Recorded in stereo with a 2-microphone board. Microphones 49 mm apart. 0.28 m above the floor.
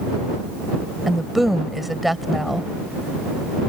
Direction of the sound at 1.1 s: 5° right (ahead or behind).